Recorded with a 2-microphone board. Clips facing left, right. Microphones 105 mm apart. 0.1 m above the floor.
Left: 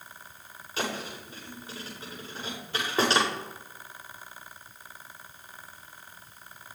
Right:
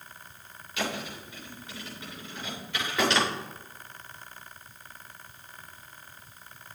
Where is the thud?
35° left (ahead or behind), 7 m.